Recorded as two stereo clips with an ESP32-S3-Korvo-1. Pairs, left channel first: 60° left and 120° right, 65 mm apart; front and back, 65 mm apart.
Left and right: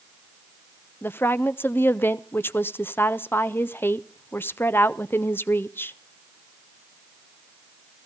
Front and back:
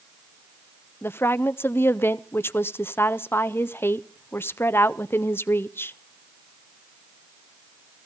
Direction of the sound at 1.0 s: 25° left.